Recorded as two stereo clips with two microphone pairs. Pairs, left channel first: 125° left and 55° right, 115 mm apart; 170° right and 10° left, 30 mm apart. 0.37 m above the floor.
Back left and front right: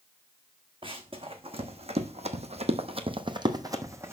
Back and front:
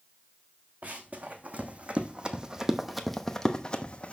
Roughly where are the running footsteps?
Ahead.